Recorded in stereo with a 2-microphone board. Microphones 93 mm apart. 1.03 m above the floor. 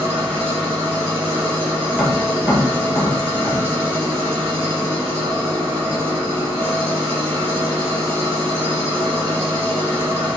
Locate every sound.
0.0 s an engine running: 90° right, 1.2 m
1.9 s tapping: 20° right (ahead or behind), 1.2 m